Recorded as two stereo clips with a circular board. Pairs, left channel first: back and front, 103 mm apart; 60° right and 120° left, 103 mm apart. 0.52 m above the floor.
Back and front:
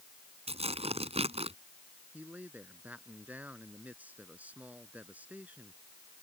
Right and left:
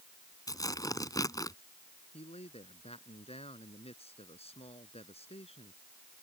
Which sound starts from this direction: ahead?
Tearing paper, at 0.5 s.